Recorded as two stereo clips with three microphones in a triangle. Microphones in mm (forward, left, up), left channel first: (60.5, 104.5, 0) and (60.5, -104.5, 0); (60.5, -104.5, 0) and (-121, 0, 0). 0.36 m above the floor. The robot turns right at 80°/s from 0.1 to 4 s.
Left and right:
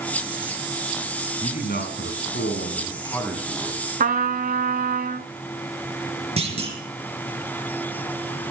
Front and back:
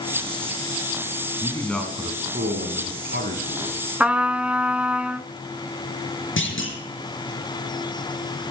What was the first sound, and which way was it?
A man speaking, 30° left.